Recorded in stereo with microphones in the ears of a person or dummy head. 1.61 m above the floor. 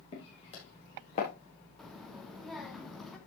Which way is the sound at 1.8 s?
Centre (ahead or behind).